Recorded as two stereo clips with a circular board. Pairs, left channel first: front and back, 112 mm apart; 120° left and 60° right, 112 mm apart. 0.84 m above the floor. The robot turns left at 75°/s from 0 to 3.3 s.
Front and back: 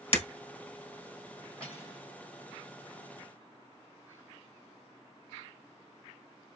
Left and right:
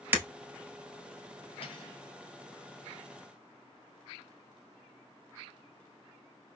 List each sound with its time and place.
0.1 s breaking glass: 10° left, 1.3 m; by 0.2 s 5° left, 1.3 m
1.6 s cutlery clinking: 80° left, 2 m; by 2.0 s 50° left, 2 m